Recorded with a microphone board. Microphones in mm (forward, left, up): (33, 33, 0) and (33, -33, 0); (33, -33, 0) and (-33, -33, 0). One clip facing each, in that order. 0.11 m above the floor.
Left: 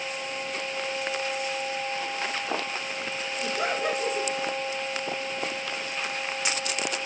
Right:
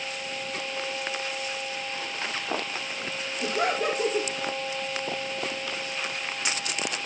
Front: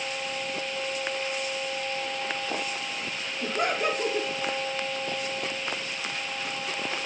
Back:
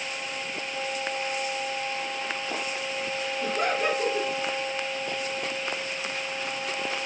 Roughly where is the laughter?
Right.